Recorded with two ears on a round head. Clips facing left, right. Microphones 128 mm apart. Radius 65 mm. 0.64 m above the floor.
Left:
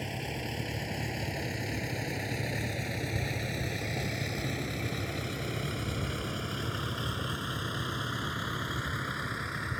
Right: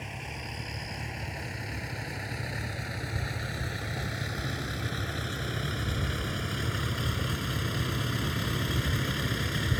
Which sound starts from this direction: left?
A vehicle, at 0.0 s.